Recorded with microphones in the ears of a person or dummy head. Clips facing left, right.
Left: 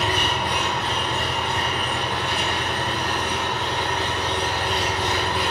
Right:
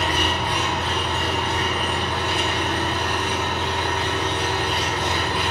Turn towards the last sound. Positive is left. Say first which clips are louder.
# right 1 dB
turn(degrees=5)  # may be behind; listen again after turning